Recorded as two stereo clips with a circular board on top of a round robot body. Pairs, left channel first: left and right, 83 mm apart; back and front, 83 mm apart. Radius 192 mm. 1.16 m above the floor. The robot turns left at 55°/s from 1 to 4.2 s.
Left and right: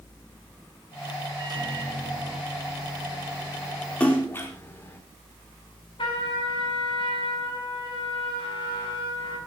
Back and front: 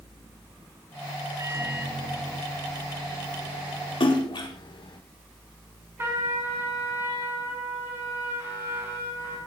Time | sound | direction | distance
1.4 | a microwave | 55° right | 4 m
4.0 | a splash | 160° left | 4 m
6.0 | a trumpet | 65° left | 7 m